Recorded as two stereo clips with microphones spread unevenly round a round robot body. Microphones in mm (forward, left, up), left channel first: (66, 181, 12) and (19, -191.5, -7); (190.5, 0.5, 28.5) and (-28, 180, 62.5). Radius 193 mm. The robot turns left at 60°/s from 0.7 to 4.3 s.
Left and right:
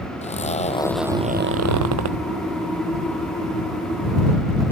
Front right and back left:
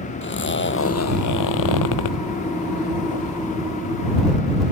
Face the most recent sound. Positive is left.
turn(degrees=155)